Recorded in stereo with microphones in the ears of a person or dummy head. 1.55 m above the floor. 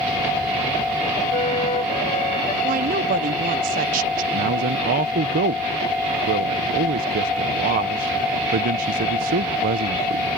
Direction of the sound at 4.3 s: 40° right (ahead or behind).